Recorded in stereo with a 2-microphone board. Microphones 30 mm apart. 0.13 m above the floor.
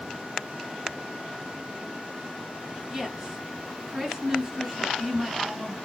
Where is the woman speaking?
20° right (ahead or behind), 1.1 m.